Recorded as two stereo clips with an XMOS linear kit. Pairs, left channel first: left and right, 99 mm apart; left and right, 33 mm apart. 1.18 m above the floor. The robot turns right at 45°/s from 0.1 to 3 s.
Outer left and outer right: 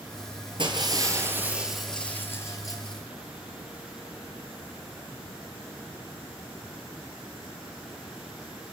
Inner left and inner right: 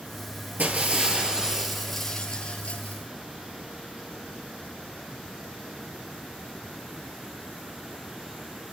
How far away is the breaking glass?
About 7.5 m.